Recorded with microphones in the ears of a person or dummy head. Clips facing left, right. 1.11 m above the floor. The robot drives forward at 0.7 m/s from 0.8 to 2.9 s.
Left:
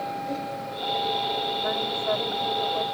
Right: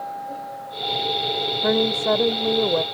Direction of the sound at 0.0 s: 40° left (ahead or behind).